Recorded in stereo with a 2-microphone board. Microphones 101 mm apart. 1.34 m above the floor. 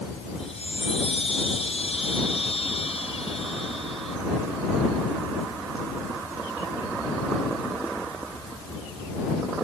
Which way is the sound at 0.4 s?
80° left.